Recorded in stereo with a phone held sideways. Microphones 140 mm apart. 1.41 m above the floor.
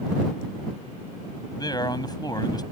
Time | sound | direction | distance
1.6 | a man speaking | 30° left (ahead or behind) | ?